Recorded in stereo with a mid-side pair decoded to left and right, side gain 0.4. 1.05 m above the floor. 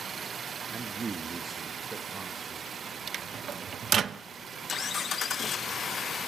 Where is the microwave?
55° right, 0.6 m.